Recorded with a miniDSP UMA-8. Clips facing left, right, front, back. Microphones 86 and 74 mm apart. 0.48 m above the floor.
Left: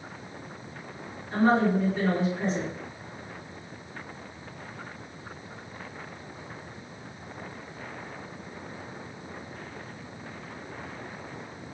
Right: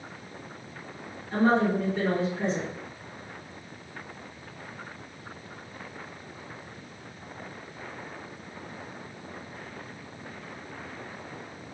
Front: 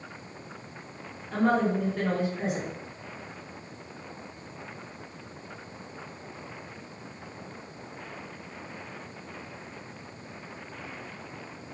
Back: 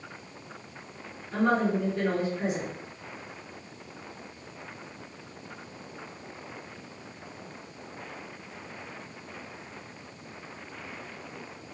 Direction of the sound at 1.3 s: 5° left.